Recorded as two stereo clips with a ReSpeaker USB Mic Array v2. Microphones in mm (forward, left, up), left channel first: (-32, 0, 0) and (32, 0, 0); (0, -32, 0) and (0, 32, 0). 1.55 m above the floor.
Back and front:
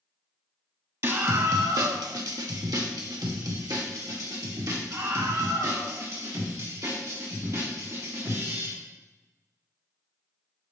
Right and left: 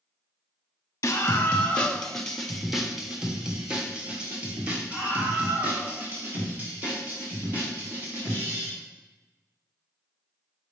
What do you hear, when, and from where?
1.0 s a scream: 40° right, 0.8 m; by 8.7 s 30° left, 4 m